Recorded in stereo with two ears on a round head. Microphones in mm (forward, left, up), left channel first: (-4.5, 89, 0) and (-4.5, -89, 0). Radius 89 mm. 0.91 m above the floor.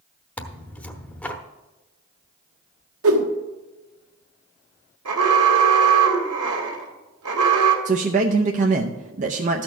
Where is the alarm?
85° right, 1.8 m.